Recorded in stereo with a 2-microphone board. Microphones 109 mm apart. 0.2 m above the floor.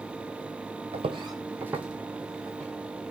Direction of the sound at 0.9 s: 60° right (ahead or behind).